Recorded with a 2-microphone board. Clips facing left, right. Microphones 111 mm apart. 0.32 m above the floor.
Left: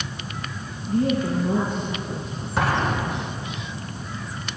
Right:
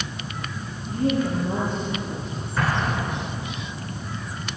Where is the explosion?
85° left, 3.5 m.